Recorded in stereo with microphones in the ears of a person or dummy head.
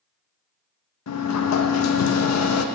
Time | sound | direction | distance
1.1 | a sliding door | 75° left (ahead or behind) | 0.7 m